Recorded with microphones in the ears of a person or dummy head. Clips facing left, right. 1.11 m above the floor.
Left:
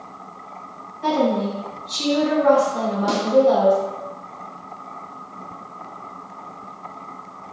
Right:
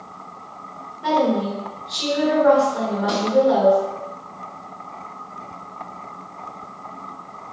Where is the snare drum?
60° left (ahead or behind), 1.3 m.